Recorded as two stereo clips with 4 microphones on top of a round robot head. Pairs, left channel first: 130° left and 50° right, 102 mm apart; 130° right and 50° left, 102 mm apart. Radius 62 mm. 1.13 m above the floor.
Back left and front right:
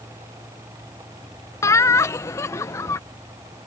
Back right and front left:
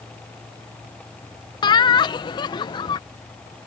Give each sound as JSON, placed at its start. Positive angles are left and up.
{"t": 1.6, "sound": "laughter", "azimuth_deg": -170}